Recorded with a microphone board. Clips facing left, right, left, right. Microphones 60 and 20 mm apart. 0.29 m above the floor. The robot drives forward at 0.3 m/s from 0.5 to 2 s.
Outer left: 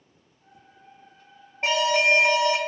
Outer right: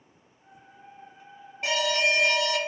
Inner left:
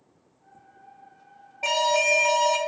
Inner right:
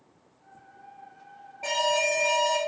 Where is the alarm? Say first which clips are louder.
Outer left 4 dB, inner left 3 dB; 35° left (ahead or behind), 0.8 m.